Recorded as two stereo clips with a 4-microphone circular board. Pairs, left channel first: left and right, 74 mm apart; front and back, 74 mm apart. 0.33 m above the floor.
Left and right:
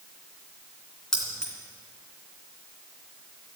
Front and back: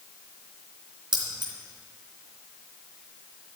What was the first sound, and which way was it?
Keys jangling, 170° left.